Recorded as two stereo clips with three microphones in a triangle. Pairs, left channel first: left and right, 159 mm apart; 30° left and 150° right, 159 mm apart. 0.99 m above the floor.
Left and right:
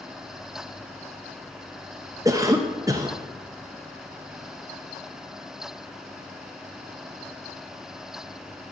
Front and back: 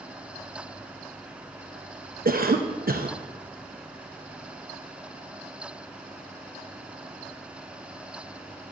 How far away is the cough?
About 0.7 m.